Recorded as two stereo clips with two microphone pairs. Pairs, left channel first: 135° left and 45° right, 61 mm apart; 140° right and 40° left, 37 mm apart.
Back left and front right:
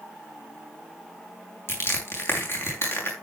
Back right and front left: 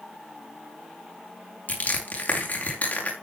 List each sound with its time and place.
1.7 s crushing: straight behind, 6.5 m